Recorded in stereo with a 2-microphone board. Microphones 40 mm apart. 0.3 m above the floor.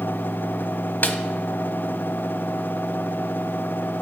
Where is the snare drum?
55° left (ahead or behind), 1.0 m.